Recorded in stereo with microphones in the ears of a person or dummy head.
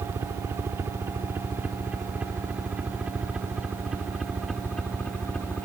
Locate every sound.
0.0 s a helicopter: 15° right (ahead or behind); by 5.7 s 5° left (ahead or behind)